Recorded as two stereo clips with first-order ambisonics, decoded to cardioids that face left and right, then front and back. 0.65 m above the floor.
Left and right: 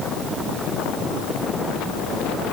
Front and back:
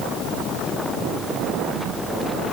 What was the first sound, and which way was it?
Only background noise.